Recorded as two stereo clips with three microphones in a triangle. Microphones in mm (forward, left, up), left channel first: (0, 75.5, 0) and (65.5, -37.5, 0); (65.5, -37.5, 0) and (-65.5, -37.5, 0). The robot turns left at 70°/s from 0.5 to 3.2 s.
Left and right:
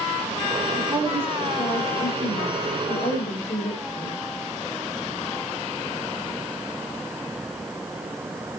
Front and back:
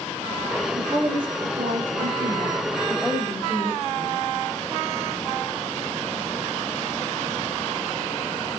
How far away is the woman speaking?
About 7.5 m.